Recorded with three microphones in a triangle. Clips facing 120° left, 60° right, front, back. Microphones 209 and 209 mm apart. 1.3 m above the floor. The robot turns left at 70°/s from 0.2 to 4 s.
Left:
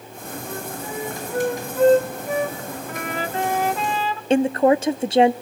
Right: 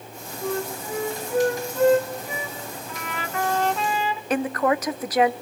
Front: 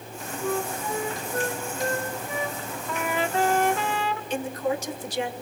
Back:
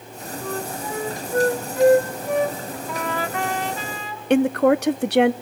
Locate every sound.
0.4 s a flute: 70° right, 2.5 m; by 2.8 s 125° left, 2.5 m
2.9 s a trumpet: 95° left, 1.1 m; by 4.2 s 15° left, 1.1 m
4.3 s a woman speaking: 175° right, 0.8 m